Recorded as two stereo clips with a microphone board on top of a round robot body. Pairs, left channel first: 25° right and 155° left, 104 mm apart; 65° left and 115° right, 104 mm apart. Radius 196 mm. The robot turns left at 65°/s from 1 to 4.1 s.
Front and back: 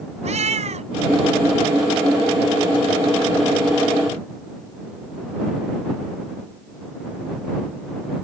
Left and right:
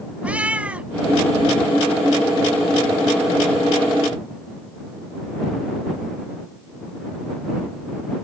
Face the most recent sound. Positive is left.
turn(degrees=-30)